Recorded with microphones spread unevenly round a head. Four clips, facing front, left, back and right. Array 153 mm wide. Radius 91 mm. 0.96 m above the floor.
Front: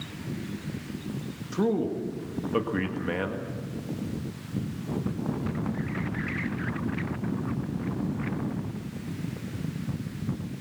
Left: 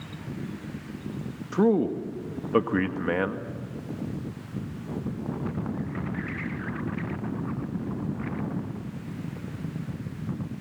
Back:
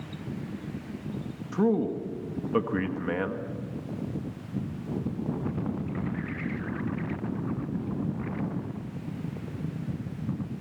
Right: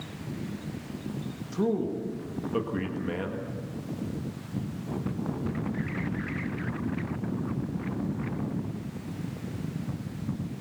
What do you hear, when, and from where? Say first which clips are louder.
1.5 s a man speaking: left 6 dB, back 1 dB; 85° left, 1.7 m